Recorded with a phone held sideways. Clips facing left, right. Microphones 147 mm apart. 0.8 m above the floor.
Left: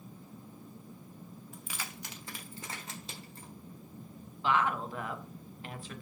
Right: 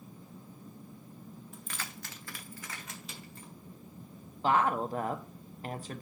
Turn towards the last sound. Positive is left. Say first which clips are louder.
# right 3 dB
turn(degrees=-40)  # may be behind; listen again after turning